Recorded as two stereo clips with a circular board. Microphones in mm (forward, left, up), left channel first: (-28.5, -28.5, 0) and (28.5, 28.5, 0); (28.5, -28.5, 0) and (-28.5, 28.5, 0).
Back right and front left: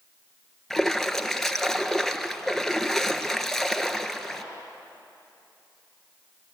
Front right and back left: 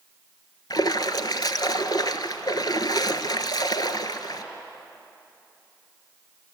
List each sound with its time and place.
0.7 s a splash: 50° right, 1.0 m